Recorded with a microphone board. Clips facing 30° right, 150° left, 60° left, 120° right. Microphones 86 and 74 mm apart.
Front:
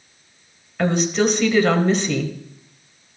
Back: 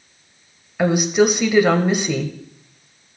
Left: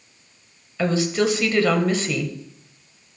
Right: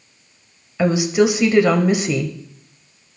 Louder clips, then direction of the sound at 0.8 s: Back 3 dB, right 5 dB; 155° right.